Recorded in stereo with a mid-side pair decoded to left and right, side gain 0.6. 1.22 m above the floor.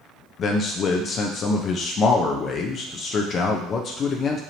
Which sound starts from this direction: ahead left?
A man speaking, at 0.4 s.